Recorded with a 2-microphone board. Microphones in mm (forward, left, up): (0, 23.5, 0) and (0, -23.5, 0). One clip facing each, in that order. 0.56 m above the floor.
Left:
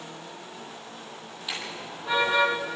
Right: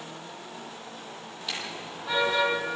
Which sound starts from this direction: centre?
A car horn, at 1.5 s.